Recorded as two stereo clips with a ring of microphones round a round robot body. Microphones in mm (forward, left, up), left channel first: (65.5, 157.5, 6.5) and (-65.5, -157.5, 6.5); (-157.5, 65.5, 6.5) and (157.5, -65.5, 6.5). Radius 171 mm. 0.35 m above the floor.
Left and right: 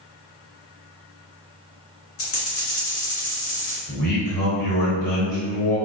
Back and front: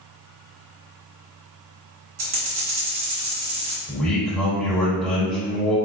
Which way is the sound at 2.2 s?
20° left.